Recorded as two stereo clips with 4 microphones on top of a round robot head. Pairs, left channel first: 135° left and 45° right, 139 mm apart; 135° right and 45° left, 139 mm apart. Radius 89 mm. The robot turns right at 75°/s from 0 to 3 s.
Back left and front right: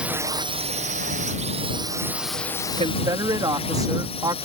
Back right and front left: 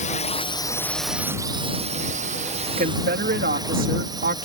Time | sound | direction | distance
0.0 | a drone | 125° right | ?
2.8 | a woman speaking | 5° left | ?